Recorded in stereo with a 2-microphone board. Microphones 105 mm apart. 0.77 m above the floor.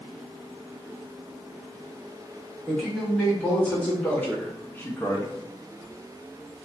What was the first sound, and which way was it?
A man speaking, 10° left (ahead or behind).